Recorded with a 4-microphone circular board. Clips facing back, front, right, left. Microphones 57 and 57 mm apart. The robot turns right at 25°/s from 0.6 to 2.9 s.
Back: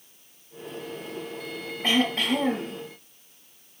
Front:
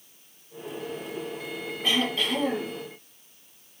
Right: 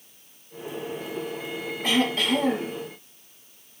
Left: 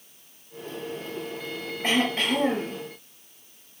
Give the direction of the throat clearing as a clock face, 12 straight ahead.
7 o'clock.